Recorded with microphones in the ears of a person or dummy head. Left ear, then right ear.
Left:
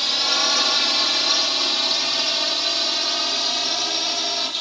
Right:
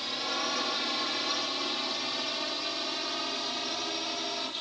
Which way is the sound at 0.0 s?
35° left (ahead or behind).